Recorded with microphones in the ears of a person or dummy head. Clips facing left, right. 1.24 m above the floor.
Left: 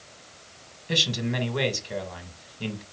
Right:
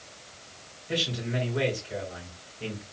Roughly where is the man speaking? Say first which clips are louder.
Left 2 dB; left.